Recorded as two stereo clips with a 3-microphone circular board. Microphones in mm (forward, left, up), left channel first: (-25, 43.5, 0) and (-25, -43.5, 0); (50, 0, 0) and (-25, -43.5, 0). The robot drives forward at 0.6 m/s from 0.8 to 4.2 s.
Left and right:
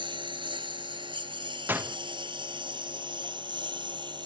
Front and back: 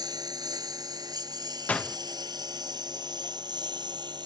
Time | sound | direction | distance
0.0 | a lawn mower | 110° right | ?
1.7 | a door slam | 35° right | ?